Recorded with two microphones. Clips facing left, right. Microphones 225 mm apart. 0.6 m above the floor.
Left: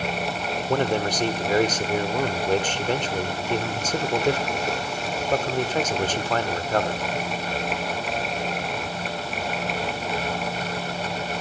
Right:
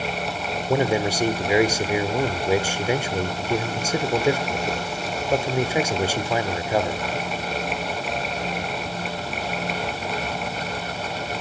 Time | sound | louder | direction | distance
0.7 | a man speaking | right 2 dB | 10° right (ahead or behind) | 1.5 m